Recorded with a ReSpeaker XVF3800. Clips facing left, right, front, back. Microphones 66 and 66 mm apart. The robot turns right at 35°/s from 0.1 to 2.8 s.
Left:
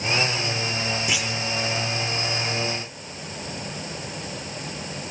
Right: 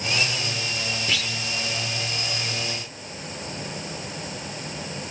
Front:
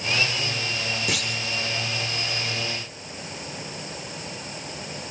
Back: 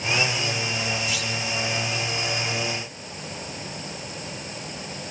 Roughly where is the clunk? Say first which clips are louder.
Left 1 dB, even; ahead.